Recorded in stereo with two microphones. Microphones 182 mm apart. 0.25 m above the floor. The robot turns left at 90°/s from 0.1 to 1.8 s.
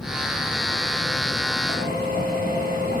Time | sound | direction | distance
1.7 | a drill | 70° left (ahead or behind) | 9 m